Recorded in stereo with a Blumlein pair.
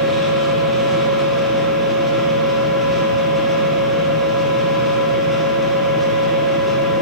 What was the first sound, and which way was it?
A machine running, straight ahead.